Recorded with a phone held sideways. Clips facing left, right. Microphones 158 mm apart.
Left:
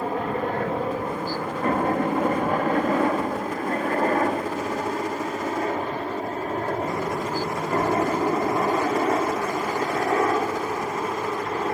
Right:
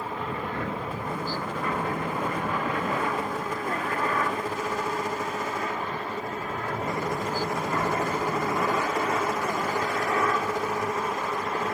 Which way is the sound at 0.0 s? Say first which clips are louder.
Left 7 dB; 50° left (ahead or behind).